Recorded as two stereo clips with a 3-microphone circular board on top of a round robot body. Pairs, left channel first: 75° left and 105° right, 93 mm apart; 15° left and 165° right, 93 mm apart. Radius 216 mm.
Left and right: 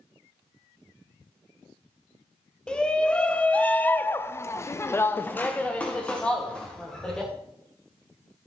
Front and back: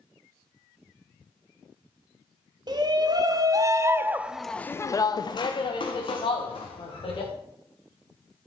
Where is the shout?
155° left, 1.5 m; by 7.3 s 10° right, 2 m.